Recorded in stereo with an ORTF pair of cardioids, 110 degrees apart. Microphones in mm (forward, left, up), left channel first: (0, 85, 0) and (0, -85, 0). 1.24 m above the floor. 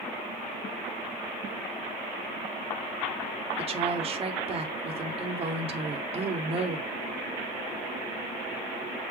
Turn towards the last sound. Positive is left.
turn(degrees=-35)